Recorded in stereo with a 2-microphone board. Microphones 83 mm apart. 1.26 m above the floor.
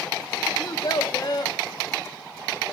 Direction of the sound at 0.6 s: 50° left (ahead or behind).